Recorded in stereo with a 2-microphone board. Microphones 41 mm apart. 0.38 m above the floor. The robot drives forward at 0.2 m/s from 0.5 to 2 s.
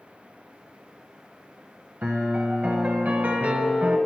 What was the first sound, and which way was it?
A piano, 50° right (ahead or behind).